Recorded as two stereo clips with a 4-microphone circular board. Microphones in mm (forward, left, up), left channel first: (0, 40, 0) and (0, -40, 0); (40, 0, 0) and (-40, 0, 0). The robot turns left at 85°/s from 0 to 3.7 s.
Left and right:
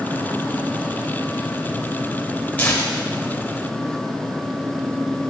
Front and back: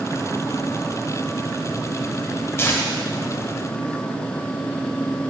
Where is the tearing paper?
35° left, 1.3 m; by 4.0 s 60° right, 1.3 m.